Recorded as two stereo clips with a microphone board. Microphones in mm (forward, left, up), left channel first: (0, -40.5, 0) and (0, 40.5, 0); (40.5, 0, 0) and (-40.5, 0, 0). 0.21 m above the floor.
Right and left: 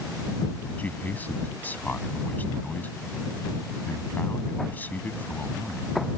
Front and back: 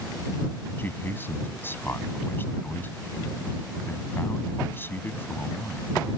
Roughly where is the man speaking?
Ahead right.